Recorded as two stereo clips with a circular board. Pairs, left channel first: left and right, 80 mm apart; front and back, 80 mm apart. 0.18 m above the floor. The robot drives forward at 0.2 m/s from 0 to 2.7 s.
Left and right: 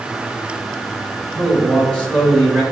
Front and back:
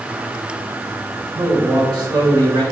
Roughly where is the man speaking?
Behind.